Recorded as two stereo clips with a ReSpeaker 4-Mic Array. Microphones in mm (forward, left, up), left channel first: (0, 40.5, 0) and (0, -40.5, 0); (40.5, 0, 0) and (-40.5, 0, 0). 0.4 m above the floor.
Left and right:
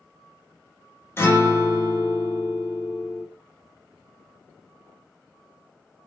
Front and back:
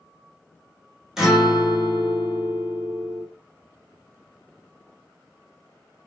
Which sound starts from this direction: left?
A guitar, at 1.2 s.